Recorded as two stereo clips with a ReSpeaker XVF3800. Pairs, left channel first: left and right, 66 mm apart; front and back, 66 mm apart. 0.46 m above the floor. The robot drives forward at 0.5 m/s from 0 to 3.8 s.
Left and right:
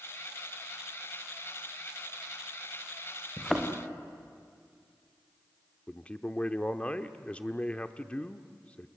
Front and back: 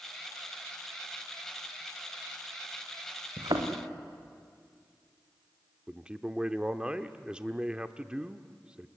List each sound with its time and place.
3.4 s a thud: 175° left, 3.5 m
5.9 s a man speaking: 130° left, 0.7 m